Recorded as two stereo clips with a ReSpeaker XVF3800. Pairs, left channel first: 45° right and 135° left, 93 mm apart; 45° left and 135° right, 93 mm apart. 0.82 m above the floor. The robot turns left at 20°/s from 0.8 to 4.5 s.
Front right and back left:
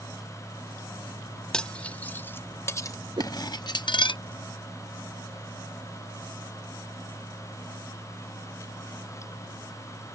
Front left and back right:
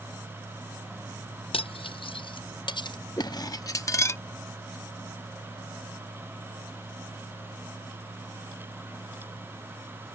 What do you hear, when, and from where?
1.5 s cutlery clinking: 35° left; by 4.2 s 15° right
3.2 s a whoosh: 100° left; by 3.4 s 95° left